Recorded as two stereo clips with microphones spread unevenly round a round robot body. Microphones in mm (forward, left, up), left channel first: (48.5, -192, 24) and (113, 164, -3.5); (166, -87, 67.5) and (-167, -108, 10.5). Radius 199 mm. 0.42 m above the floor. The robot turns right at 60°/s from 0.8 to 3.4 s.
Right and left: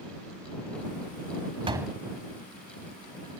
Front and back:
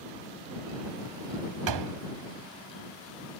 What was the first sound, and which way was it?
A door slam, 155° left.